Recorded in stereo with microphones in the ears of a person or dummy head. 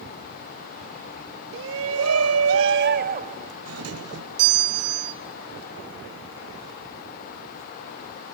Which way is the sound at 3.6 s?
80° right.